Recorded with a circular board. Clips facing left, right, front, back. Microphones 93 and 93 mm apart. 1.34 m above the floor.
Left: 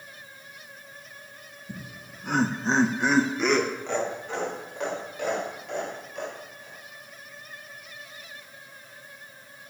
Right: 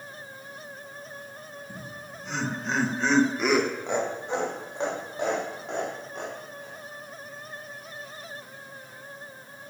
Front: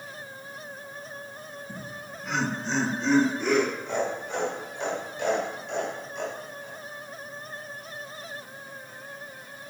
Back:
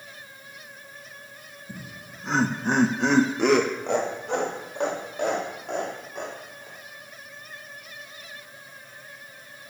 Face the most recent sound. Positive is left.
turn(degrees=-140)